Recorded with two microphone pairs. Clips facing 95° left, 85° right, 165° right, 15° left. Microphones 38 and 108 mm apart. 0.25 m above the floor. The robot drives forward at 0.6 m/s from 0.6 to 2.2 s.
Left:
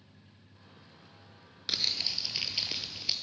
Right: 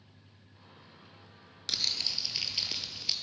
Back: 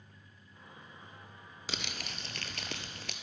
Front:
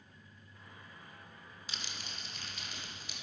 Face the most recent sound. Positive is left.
turn(degrees=175)